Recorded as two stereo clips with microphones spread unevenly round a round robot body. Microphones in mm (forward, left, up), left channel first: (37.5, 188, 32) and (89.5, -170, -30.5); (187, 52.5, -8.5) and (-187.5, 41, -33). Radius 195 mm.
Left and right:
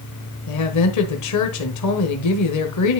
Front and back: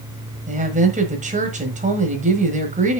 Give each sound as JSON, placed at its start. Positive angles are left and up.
{"t": 0.5, "sound": "a woman speaking", "azimuth_deg": 125, "distance_m": 1.4}